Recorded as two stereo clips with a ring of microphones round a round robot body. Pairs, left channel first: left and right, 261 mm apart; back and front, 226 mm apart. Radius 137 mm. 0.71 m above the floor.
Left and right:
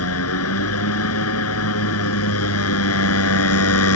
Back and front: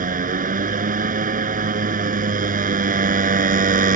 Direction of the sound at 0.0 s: 55° left.